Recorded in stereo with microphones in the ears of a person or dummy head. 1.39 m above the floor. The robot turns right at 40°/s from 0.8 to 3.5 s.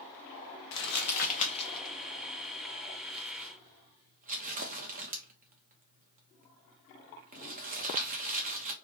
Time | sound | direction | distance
0.7 | crumpling | 65° left (ahead or behind) | 0.8 m